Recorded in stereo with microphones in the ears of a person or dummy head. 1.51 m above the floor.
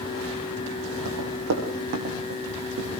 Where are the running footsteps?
70° right (ahead or behind), 6 m; by 3.0 s 50° right (ahead or behind), 8 m.